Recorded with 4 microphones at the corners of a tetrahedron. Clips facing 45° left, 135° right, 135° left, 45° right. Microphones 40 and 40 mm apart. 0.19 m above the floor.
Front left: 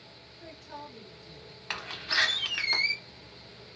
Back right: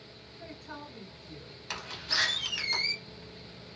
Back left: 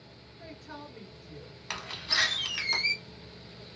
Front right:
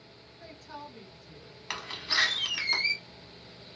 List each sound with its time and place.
0.4 s a woman speaking: 155° right, 1.9 m
1.7 s a door slam: 25° left, 0.7 m